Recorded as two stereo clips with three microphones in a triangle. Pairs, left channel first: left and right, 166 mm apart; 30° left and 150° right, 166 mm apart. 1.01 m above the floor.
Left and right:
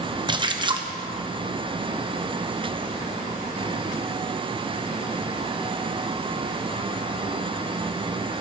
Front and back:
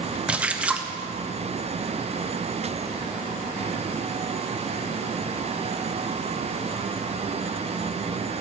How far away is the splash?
About 0.8 m.